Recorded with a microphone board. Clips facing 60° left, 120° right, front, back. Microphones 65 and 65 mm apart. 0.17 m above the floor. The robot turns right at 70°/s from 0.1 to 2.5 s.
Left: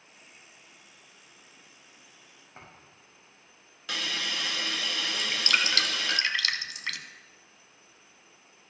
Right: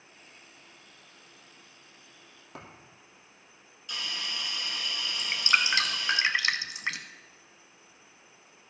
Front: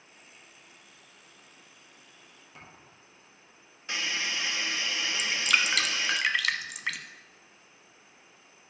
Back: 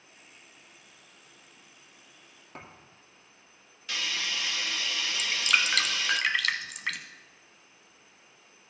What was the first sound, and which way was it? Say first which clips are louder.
A thud: right 4 dB, back 5 dB; 135° right.